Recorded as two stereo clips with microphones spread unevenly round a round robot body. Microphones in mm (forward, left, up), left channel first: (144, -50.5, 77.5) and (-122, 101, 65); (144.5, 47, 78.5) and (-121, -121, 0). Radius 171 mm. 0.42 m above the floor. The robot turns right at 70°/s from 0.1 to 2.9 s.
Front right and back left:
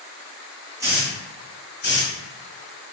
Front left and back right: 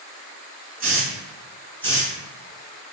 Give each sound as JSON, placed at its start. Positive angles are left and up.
{"t": 0.8, "sound": "a hiss", "azimuth_deg": -140, "distance_m": 1.3}